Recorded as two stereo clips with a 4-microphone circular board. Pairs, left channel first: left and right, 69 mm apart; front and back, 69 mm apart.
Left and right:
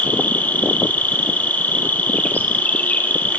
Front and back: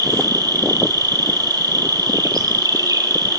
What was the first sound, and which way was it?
An insect, 155° left.